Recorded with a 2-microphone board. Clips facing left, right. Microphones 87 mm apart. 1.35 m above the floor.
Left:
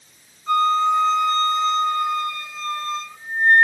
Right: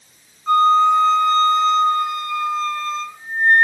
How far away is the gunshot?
I don't hear a gunshot.